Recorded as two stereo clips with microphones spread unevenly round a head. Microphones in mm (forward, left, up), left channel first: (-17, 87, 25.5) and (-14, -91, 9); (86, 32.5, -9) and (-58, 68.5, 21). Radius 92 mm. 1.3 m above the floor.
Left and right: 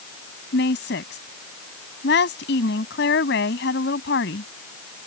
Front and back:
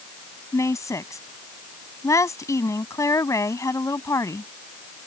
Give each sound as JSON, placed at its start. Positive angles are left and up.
{"t": 0.5, "sound": "a woman speaking", "azimuth_deg": 55}